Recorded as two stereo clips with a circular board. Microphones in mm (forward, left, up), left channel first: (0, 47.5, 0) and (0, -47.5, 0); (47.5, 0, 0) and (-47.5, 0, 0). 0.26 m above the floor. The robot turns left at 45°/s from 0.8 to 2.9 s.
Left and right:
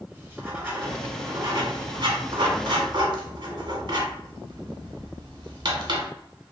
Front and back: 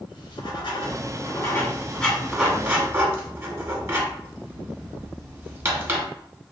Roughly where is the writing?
Ahead right.